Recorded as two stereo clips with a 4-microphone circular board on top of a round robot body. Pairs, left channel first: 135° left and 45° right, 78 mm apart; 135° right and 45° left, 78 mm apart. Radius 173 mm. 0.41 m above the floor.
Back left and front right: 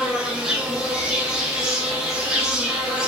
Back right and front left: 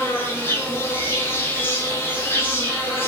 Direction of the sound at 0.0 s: 120° right.